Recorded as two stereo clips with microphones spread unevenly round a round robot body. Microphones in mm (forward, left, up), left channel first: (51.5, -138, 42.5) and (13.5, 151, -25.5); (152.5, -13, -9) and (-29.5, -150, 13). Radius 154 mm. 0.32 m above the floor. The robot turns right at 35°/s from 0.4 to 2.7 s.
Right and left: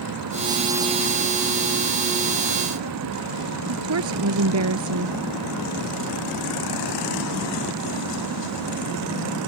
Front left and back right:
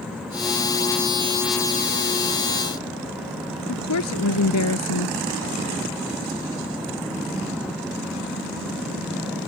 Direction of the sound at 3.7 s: 60° left.